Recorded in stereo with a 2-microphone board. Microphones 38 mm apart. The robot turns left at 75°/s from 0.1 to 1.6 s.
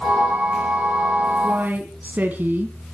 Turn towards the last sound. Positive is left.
turn(degrees=-45)  # may be behind; listen again after turning